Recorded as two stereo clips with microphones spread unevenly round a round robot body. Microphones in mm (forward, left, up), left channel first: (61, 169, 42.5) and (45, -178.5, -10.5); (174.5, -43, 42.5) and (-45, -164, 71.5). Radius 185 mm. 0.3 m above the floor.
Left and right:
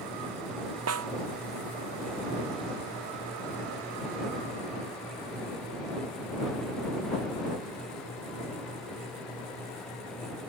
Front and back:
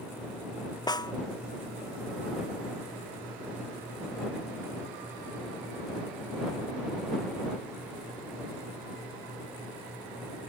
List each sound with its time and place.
0.9 s a snare drum: 45° right